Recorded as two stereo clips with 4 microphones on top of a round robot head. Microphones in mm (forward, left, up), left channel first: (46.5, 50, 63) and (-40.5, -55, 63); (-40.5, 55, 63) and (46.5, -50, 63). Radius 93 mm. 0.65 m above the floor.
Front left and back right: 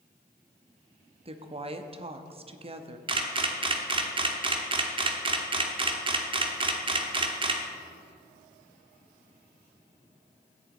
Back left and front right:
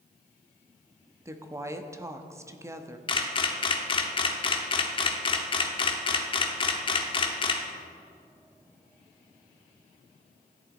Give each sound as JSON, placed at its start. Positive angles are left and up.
{"t": 1.2, "sound": "a woman speaking", "azimuth_deg": -110, "distance_m": 1.0}
{"t": 3.1, "sound": "a camera shutter", "azimuth_deg": 180, "distance_m": 1.2}